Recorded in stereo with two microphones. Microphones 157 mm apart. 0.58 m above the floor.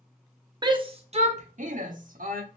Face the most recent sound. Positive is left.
turn(degrees=-65)  # may be behind; listen again after turning